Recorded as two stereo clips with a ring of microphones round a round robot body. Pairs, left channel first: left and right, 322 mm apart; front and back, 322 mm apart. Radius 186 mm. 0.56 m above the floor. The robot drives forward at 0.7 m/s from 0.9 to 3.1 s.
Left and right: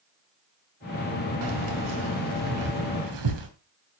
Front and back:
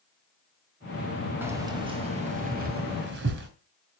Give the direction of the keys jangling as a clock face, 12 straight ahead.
3 o'clock.